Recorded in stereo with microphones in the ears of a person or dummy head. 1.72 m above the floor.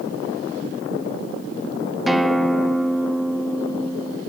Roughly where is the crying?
No crying in this recording.